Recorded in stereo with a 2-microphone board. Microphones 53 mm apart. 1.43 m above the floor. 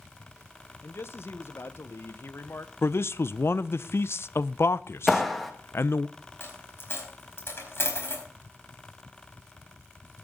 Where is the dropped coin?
50° left (ahead or behind), 4.5 m.